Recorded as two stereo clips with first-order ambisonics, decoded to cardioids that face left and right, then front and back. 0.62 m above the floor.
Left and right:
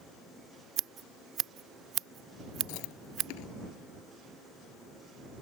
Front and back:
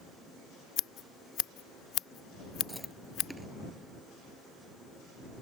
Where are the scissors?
40° right.